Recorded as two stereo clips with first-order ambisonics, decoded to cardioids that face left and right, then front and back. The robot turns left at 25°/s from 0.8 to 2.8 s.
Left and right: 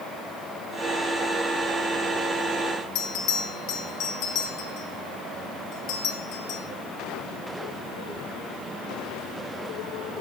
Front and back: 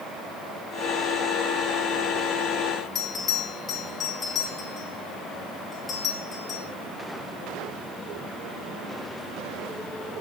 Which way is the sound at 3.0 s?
70° left.